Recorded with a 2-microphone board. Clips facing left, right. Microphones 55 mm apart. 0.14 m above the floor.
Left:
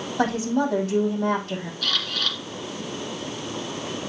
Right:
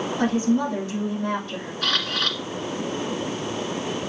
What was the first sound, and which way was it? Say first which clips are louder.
A woman speaking: even; 55° left (ahead or behind).